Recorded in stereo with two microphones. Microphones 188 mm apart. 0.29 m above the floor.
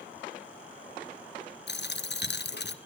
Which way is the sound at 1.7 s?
65° left (ahead or behind).